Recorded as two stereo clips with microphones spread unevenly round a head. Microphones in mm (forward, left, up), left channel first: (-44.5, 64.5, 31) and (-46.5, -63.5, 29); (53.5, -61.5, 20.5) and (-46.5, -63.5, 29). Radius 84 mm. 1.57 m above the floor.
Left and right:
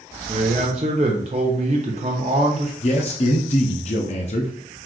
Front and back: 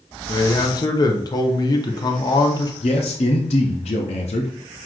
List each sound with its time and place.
0.3 s a man speaking: 45° right, 0.8 m
2.8 s a man speaking: 40° left, 0.5 m